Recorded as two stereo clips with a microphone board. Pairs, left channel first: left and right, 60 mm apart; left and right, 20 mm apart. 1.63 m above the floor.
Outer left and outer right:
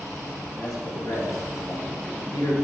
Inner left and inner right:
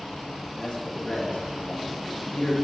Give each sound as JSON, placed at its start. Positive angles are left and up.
{"t": 0.6, "sound": "a man speaking", "side_deg": 90, "distance_m": 3.0}